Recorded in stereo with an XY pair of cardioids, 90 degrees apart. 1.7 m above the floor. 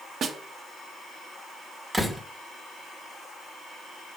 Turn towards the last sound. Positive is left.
turn(degrees=-15)